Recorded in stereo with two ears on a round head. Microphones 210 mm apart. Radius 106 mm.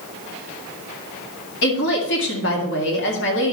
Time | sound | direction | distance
1.6 | a woman speaking | 50° left (ahead or behind) | 1.9 m